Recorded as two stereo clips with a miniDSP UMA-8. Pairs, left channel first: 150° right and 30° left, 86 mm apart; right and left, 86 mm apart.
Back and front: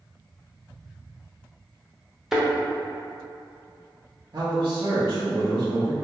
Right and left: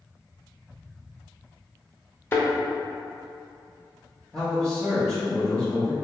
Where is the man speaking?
10° right, 0.9 m.